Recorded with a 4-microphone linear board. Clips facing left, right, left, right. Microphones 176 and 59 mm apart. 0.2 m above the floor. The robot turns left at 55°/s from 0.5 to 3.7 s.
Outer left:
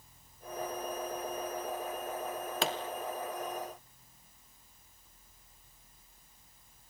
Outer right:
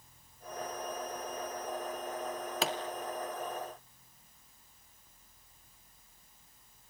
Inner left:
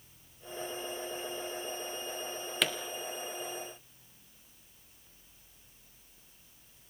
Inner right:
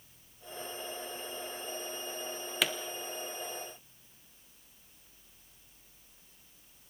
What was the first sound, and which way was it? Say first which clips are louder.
A pop: even, even; centre (ahead or behind).